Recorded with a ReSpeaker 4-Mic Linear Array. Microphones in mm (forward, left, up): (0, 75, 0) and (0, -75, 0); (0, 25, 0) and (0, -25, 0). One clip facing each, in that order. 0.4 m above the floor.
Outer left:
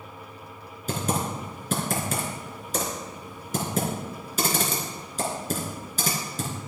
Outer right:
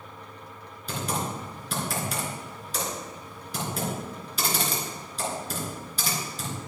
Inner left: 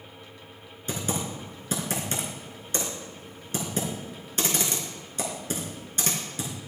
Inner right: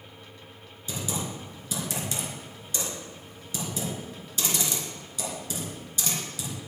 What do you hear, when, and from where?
0.9 s typing on a keyboard: 45° left (ahead or behind), 3.5 m